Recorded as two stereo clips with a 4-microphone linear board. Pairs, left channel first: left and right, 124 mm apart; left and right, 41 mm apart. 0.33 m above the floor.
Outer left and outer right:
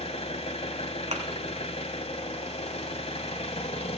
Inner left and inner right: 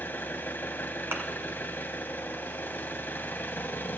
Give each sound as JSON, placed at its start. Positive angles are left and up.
{"t": 0.0, "sound": "an engine running", "side_deg": 60, "distance_m": 1.1}
{"t": 1.1, "sound": "a thud", "side_deg": -70, "distance_m": 1.6}